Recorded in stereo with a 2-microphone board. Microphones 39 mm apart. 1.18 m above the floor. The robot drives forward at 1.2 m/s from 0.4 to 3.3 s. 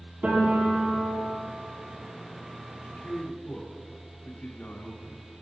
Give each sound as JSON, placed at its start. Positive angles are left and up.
{"t": 0.2, "sound": "a piano", "side_deg": -45, "distance_m": 5.5}
{"t": 2.8, "sound": "a man speaking", "side_deg": 60, "distance_m": 2.5}